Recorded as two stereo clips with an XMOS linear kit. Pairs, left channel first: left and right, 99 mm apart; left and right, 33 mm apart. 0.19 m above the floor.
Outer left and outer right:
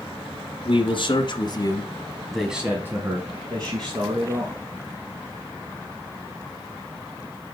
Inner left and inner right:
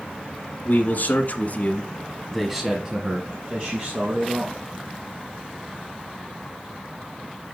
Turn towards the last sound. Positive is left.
turn(degrees=-50)  # may be behind; listen again after turning